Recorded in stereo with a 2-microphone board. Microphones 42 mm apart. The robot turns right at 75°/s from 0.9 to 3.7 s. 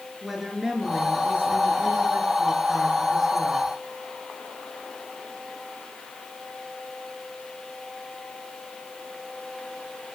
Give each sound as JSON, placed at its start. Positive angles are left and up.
{"t": 0.2, "sound": "a woman speaking", "azimuth_deg": -170, "distance_m": 4.0}